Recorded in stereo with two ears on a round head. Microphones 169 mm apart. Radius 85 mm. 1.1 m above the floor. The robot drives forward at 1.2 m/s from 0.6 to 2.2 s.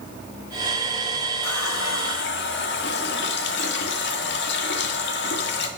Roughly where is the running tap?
Left.